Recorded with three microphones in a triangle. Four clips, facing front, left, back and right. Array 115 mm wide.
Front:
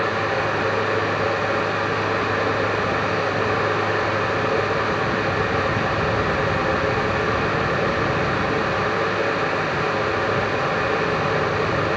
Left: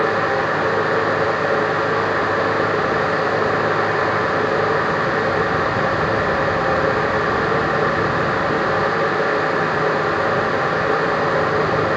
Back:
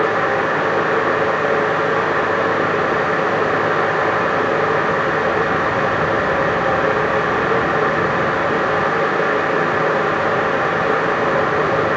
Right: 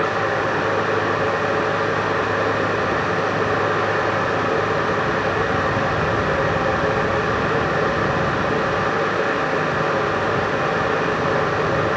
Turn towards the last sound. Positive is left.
No sound to turn to.